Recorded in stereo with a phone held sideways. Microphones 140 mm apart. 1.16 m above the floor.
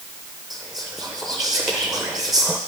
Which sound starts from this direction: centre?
Whispering, at 0.5 s.